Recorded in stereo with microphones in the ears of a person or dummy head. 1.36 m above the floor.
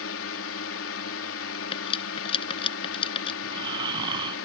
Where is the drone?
65° left (ahead or behind).